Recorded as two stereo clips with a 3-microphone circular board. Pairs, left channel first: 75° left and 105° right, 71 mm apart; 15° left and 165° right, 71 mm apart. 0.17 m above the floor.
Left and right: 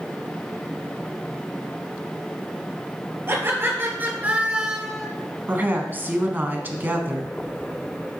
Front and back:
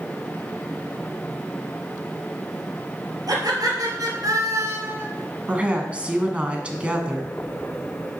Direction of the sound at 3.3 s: 155° right.